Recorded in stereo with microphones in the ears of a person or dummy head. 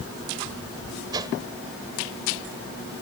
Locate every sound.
1.1 s a whoosh: 25° right (ahead or behind)